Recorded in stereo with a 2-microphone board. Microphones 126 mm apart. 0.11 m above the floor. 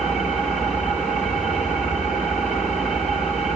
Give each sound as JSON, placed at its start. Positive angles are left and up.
{"t": 0.0, "sound": "an engine running", "side_deg": 0, "distance_m": 7.0}